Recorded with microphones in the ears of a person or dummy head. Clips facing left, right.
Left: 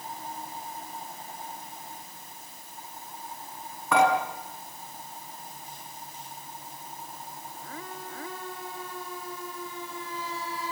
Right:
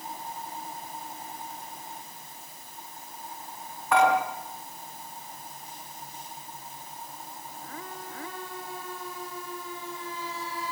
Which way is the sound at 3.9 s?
80° left.